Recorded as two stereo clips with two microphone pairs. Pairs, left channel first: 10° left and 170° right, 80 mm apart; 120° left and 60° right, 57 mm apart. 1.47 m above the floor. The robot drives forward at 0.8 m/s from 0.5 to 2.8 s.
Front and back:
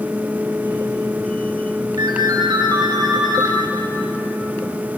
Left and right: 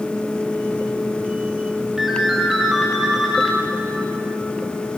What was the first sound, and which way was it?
A ringtone, 140° right.